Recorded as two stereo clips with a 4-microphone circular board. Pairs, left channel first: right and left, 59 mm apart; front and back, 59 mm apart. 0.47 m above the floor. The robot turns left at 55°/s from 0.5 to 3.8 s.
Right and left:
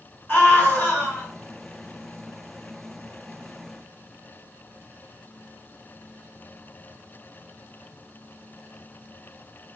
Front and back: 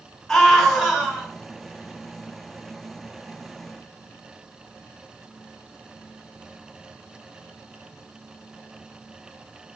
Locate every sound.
0.3 s a scream: 80° right, 1.4 m; by 1.3 s 125° right, 1.4 m